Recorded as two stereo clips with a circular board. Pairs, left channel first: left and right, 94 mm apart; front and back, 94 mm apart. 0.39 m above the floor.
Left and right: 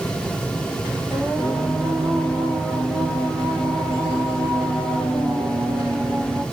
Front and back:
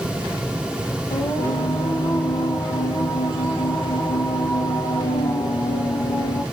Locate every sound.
1.1 s singing: 10° left, 1.5 m